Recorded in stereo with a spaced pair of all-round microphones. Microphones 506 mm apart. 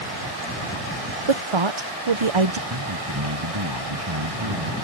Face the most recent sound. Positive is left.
turn(degrees=-55)  # may be behind; listen again after turning